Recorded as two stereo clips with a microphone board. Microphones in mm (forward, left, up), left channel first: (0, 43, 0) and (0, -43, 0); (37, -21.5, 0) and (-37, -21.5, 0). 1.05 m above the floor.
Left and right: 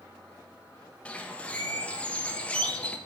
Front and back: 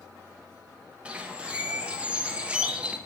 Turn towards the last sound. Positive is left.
turn(degrees=140)